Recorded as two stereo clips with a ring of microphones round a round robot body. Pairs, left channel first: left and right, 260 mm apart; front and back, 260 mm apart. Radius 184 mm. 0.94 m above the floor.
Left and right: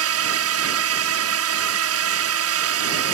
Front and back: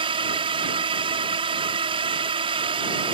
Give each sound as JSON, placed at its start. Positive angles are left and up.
{"t": 0.0, "sound": "a drone", "azimuth_deg": -105}